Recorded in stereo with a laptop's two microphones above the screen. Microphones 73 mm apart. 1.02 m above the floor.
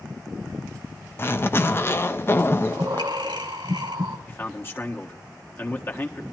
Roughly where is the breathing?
Right.